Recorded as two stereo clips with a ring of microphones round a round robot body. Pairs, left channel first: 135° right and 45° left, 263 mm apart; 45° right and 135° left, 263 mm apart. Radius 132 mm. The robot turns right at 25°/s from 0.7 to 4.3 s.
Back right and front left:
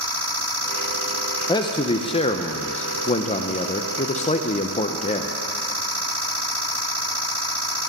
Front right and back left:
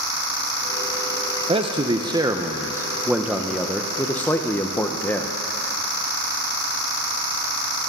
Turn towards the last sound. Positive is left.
turn(degrees=-115)